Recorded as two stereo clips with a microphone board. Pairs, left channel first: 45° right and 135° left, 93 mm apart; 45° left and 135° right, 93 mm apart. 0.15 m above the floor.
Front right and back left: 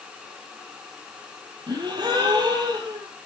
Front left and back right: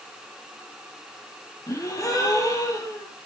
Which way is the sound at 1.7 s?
100° left.